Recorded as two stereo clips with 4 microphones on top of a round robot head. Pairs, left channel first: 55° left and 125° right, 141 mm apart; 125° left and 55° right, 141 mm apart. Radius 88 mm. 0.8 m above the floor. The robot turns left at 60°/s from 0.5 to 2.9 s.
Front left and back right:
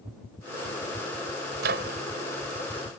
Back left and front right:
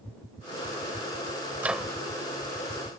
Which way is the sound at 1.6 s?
130° right.